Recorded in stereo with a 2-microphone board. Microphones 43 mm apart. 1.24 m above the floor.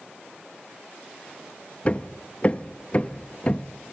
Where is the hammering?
30° left (ahead or behind), 0.7 m.